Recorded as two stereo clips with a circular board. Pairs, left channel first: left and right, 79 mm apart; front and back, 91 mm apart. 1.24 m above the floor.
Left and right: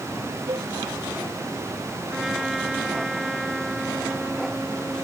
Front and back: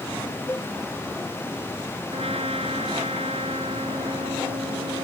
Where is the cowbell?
65° right.